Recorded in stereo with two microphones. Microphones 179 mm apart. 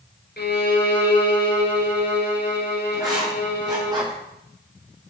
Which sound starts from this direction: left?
A violin, at 0.4 s.